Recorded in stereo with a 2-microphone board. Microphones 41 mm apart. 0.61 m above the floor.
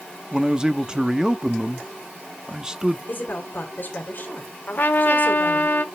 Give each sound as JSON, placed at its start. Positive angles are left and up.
{"t": 0.3, "sound": "a man speaking", "side_deg": -20, "distance_m": 0.5}
{"t": 3.1, "sound": "a woman speaking", "side_deg": 50, "distance_m": 1.8}
{"t": 4.7, "sound": "a trumpet", "side_deg": 50, "distance_m": 0.9}